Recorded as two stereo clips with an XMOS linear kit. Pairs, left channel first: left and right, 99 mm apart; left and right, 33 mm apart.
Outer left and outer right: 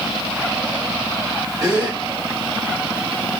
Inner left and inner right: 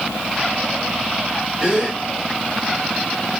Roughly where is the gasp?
Right.